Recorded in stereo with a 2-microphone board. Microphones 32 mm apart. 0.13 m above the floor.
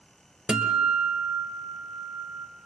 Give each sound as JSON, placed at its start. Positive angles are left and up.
{"t": 0.5, "sound": "a guitar", "side_deg": -25, "distance_m": 2.0}